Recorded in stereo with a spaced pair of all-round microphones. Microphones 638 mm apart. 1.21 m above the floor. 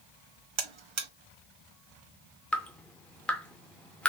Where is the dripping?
Centre (ahead or behind), 0.6 m.